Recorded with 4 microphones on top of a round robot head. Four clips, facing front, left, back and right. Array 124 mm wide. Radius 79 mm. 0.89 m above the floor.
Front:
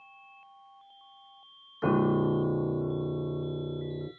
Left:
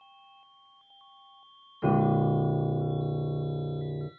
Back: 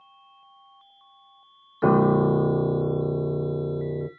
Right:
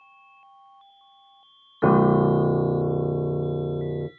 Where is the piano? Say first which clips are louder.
Right 7 dB, back 6 dB; 120° right, 1.0 m.